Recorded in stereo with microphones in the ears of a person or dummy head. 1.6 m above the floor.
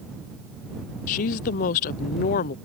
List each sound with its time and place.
1.1 s a woman speaking: 45° left (ahead or behind)